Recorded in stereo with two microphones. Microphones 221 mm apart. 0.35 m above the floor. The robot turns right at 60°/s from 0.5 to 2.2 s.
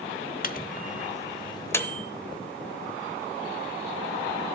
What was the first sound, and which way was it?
A microwave, 40° left (ahead or behind).